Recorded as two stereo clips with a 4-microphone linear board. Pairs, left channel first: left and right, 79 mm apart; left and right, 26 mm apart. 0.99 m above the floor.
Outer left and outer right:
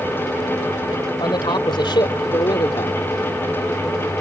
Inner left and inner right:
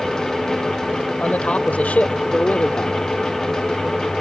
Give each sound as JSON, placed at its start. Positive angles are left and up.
{"t": 1.2, "sound": "a man speaking", "side_deg": 75}